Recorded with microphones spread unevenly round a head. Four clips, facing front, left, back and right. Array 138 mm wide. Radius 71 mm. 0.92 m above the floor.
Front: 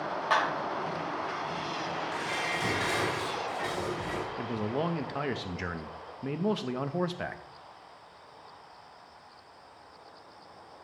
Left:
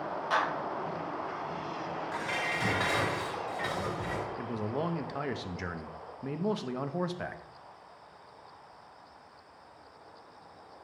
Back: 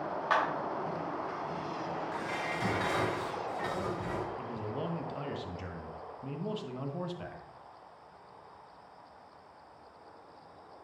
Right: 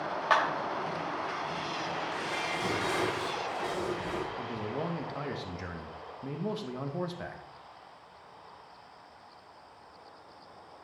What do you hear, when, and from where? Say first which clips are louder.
0.3 s a clap: right 3 dB, front 2 dB; 80° right, 3.5 m
2.1 s dishes clattering: even, front 2 dB; 80° left, 3 m
4.4 s a man speaking: left 1 dB, front 6 dB; 20° left, 0.7 m